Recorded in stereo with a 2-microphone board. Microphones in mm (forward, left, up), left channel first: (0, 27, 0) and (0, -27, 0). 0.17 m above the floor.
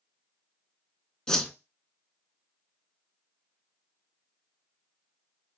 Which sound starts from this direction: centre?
A whoosh, at 1.3 s.